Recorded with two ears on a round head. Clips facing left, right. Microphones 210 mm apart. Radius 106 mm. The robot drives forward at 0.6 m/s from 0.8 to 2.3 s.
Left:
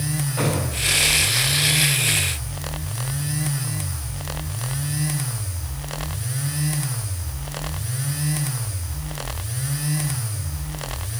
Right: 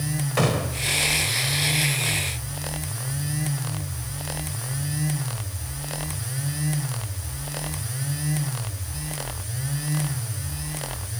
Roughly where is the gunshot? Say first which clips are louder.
Right 1 dB; right.